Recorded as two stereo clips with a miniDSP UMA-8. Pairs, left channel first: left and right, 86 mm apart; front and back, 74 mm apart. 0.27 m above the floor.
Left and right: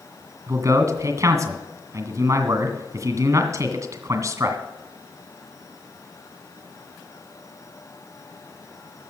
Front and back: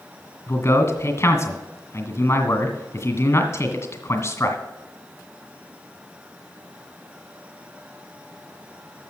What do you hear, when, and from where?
0.5 s a man speaking: 45° right, 1.9 m